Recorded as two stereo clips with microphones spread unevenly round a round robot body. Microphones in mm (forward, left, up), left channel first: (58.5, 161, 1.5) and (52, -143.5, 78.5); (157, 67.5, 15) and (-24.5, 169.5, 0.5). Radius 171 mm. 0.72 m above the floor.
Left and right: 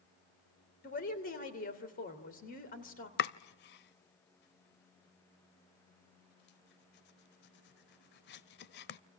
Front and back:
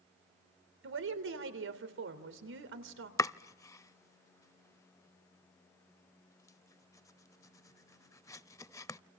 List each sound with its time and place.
0.8 s a woman speaking: 145° left, 3 m
3.2 s chopping: 30° left, 0.5 m